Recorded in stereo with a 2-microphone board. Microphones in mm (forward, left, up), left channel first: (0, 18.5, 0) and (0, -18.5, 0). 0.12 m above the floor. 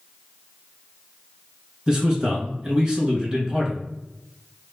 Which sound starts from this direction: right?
A man speaking, at 1.9 s.